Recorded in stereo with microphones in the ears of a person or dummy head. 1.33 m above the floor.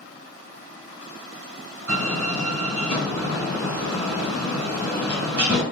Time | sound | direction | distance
1.9 | a door slam | 65° right (ahead or behind) | 1.9 m